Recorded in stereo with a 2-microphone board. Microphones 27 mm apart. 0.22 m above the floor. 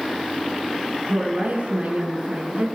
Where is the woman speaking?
60° right (ahead or behind), 2.5 m.